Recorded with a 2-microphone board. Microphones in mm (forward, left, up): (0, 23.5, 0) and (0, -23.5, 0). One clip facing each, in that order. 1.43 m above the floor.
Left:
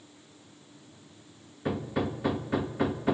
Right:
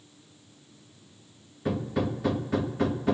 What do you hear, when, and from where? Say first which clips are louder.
1.6 s hammering: right 2 dB; 10° left (ahead or behind), 1.4 m